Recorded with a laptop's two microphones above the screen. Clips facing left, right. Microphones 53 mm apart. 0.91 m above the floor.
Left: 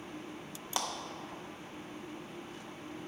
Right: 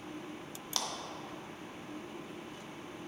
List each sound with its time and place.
0.8 s a clap: 25° left (ahead or behind), 0.6 m